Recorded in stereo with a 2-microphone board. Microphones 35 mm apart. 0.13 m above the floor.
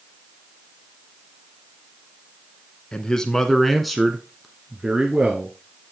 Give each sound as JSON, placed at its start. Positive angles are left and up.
{"t": 2.9, "sound": "a man speaking", "side_deg": 20, "distance_m": 1.1}